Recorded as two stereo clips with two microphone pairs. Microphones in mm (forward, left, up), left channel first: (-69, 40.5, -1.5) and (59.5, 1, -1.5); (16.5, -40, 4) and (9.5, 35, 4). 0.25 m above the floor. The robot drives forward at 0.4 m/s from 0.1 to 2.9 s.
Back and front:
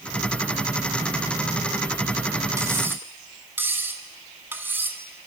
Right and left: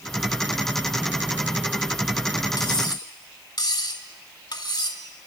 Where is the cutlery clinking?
85° right, 1.1 m; by 5.3 s 90° right, 1.1 m.